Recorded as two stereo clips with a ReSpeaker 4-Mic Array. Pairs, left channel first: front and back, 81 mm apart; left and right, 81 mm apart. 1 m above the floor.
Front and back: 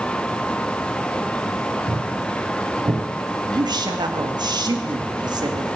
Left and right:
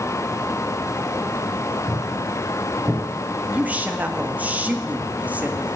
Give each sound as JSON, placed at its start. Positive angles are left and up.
{"t": 1.9, "sound": "footsteps", "azimuth_deg": -155, "distance_m": 4.0}
{"t": 3.5, "sound": "a woman speaking", "azimuth_deg": -160, "distance_m": 1.7}